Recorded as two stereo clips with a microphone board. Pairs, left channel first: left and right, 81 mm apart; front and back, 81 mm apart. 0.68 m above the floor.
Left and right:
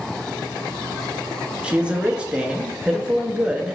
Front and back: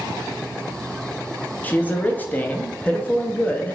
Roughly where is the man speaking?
Ahead right.